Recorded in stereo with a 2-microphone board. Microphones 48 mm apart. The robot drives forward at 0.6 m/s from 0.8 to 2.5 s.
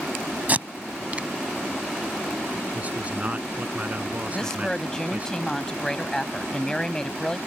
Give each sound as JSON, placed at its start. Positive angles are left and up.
{"t": 0.5, "sound": "tape being pulled", "side_deg": -35}
{"t": 2.7, "sound": "a man speaking", "side_deg": -30}
{"t": 4.3, "sound": "a woman speaking", "side_deg": 15}